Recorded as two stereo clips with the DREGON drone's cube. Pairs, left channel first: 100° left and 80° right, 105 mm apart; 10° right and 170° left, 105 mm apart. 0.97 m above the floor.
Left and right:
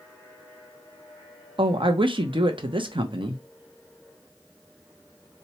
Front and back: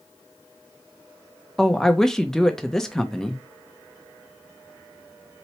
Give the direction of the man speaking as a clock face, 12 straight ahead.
3 o'clock.